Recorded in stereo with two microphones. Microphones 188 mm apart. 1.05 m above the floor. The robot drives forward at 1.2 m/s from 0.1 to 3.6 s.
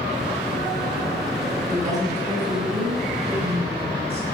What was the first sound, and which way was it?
A woman speaking, 40° right (ahead or behind).